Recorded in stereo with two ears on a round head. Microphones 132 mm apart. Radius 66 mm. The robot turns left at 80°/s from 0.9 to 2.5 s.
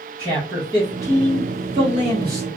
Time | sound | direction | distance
0.2 | a man speaking | 25° right | 0.9 m